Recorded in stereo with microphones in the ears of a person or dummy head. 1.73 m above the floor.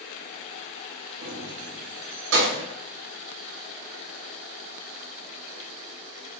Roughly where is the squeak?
I don't hear a squeak.